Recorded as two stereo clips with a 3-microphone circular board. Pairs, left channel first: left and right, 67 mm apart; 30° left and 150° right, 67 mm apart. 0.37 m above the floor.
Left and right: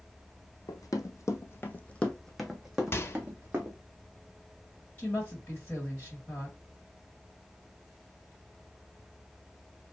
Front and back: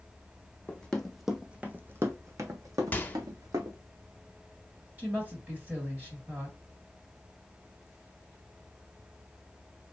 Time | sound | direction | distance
0.7 | running footsteps | 100° left | 0.9 m
2.9 | a microwave | 75° left | 0.8 m
5.0 | a woman speaking | 150° left | 2.5 m